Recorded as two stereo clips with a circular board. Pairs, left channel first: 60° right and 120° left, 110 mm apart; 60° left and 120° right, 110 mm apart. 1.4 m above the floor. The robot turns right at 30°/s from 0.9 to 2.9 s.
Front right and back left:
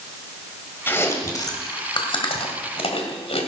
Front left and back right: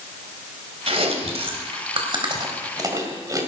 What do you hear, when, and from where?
0.9 s chewing: 130° right, 2.5 m; by 3.5 s 70° right, 2.5 m